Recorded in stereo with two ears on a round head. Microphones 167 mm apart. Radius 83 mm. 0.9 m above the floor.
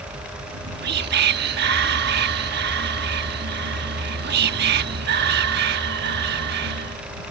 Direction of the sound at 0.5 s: 60° right (ahead or behind).